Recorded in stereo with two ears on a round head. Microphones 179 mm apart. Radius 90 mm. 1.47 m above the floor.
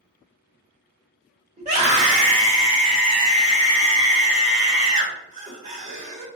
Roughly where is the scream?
Right.